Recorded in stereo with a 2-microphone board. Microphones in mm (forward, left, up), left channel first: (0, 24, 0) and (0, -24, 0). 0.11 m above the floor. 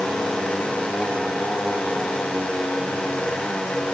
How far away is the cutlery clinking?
No cutlery clinking in this recording.